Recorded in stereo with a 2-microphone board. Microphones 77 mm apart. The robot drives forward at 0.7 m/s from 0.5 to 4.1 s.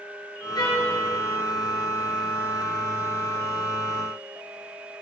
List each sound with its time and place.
0.6 s a trumpet: 60° left (ahead or behind), 3 m